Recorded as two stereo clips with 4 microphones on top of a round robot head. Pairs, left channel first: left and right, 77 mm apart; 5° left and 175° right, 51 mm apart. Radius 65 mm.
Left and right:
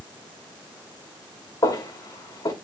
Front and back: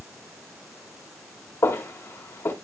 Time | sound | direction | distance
1.6 | footsteps | 40° left | 2.5 m